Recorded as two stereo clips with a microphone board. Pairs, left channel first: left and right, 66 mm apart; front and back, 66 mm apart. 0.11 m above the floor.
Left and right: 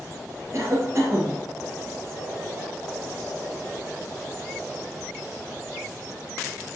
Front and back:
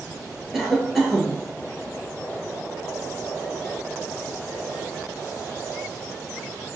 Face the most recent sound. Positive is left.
turn(degrees=-95)